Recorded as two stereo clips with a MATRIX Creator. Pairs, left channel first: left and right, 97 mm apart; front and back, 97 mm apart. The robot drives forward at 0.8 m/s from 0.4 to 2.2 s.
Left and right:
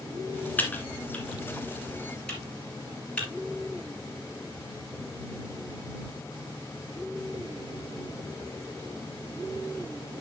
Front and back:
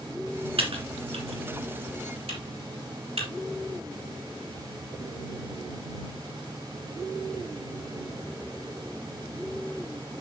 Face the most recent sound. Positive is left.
turn(degrees=170)